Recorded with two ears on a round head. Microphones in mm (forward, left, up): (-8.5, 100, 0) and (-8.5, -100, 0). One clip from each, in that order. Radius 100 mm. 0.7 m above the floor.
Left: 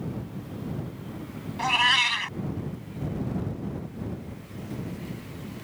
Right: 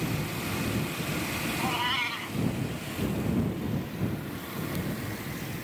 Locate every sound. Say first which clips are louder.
1.6 s a cat meowing: left 9 dB; 60° left (ahead or behind)